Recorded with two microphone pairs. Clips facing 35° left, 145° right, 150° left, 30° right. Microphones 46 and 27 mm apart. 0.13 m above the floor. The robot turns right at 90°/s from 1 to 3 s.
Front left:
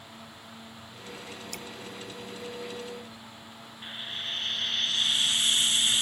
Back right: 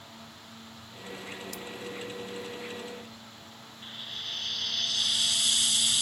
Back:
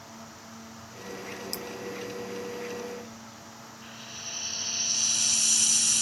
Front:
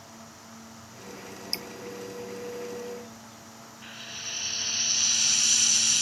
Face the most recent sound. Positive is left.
turn(degrees=15)